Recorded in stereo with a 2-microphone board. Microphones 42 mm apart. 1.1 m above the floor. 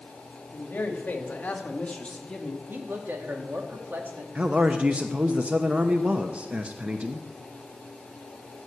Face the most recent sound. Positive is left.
turn(degrees=-30)  # may be behind; listen again after turning